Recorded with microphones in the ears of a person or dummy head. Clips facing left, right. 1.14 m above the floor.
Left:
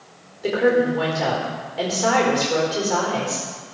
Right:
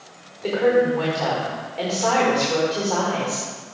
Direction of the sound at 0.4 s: 10° left (ahead or behind).